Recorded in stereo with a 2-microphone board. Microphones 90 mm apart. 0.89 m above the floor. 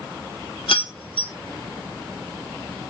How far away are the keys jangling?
About 1.8 m.